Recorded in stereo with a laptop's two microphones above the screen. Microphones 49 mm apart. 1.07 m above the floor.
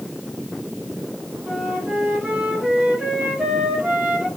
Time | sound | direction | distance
1.5 | a flute | 25° right (ahead or behind) | 1.5 m